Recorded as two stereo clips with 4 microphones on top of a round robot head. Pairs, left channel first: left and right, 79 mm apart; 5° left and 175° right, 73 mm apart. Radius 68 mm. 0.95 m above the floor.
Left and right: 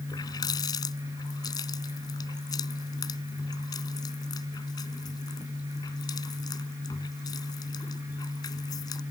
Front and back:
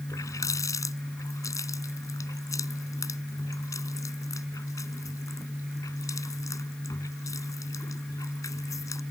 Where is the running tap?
50° left.